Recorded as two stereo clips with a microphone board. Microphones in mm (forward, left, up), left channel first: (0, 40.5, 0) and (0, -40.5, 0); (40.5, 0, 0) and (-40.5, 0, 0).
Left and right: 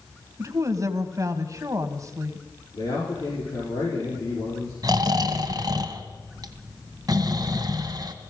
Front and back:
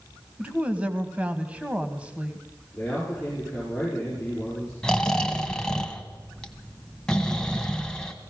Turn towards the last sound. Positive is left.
turn(degrees=-80)